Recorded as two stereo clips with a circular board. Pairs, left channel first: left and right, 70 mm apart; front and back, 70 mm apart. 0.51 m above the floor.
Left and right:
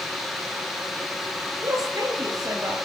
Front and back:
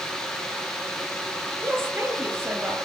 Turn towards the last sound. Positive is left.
turn(degrees=-125)